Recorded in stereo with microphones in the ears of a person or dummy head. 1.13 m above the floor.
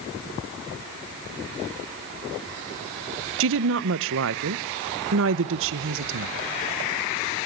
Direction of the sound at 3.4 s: 70° right (ahead or behind).